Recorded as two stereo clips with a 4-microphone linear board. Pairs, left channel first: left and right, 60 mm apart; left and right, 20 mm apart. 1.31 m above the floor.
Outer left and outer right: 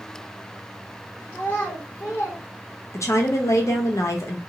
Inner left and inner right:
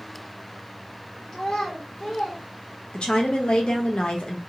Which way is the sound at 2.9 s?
60° left (ahead or behind).